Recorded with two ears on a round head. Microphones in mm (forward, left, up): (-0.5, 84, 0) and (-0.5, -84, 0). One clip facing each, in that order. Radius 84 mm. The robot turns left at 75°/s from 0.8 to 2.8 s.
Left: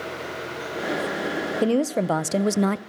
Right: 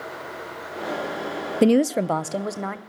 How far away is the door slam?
No door slam in this recording.